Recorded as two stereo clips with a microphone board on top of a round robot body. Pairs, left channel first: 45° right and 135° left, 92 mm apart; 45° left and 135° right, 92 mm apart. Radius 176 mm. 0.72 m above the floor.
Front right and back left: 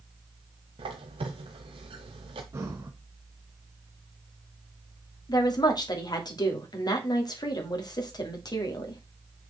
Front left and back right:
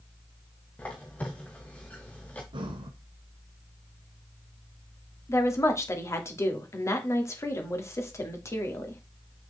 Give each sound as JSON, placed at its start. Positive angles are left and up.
{"t": 0.8, "sound": "a squeak", "azimuth_deg": 120, "distance_m": 0.6}
{"t": 2.5, "sound": "breathing", "azimuth_deg": -165, "distance_m": 0.9}
{"t": 5.3, "sound": "a woman speaking", "azimuth_deg": -10, "distance_m": 2.0}